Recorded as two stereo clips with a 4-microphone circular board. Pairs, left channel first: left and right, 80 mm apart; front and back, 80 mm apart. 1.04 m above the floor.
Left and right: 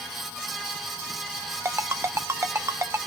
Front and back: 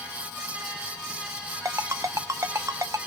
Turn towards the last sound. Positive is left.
turn(degrees=-140)